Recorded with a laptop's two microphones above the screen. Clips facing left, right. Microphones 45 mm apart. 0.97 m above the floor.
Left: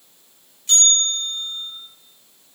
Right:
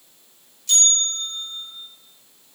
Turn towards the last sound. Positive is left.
turn(degrees=35)  # may be behind; listen again after turning